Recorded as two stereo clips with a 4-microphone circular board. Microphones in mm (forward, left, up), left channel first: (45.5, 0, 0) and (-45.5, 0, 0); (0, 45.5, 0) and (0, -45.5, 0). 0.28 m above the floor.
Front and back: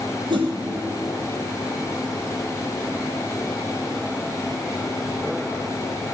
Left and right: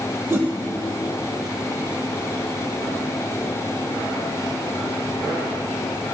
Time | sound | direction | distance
0.3 | a whoosh | 155° right | 2.5 m